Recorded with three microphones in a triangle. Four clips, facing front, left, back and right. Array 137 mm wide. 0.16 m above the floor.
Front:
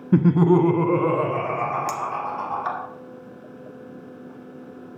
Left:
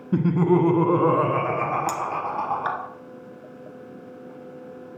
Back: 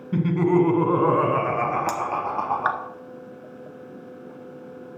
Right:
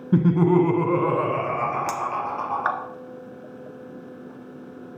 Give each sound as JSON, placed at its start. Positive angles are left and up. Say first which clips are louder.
{"t": 0.1, "sound": "laughter", "louder": "right 2 dB, front 3 dB", "azimuth_deg": -15, "distance_m": 1.3}
{"t": 1.9, "sound": "a clink", "louder": "even, back 1 dB", "azimuth_deg": -145, "distance_m": 1.5}